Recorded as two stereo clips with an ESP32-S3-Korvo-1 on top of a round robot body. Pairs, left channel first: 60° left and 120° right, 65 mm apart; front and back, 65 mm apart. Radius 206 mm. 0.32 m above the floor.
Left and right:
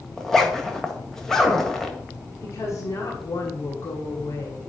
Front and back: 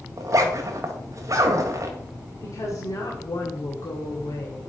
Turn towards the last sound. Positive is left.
turn(degrees=20)